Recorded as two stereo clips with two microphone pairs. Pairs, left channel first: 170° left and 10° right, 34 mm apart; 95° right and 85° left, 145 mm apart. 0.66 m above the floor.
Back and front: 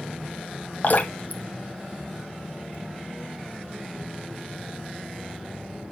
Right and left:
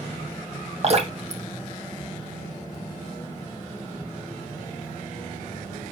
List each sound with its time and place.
0.8 s dripping: 125° left, 1.6 m